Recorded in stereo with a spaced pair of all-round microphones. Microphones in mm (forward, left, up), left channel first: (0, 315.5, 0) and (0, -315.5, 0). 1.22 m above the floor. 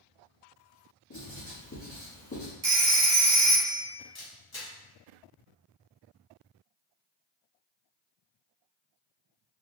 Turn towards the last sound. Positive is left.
turn(degrees=35)  # may be behind; listen again after turning